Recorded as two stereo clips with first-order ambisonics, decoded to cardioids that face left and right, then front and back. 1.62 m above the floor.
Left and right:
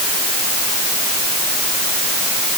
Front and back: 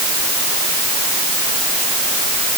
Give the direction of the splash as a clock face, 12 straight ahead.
I don't hear a splash.